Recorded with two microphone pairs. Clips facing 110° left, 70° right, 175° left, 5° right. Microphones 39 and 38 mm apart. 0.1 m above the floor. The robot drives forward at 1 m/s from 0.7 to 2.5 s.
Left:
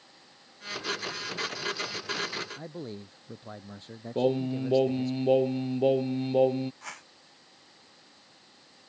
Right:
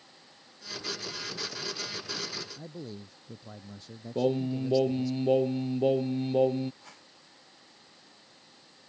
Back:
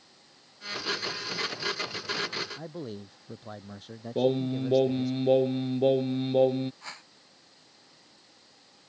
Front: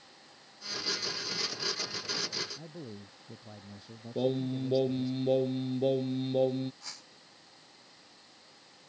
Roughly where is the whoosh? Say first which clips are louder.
Left 10 dB, back 6 dB; behind left.